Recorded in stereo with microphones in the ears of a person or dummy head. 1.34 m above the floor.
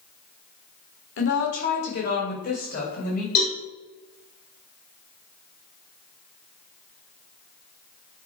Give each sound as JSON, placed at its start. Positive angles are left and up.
{"t": 1.2, "sound": "a woman speaking", "side_deg": 65, "distance_m": 1.8}
{"t": 3.4, "sound": "a cowbell", "side_deg": 55, "distance_m": 3.5}